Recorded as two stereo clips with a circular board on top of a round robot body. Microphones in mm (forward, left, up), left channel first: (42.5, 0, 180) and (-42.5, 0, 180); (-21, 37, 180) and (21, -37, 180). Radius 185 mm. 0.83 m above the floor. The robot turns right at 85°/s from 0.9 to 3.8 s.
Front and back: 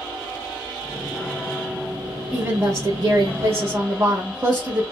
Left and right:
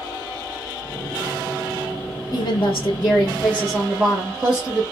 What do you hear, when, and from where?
2.3 s a woman speaking: 105° left, 1.4 m; by 4.8 s 130° right, 1.4 m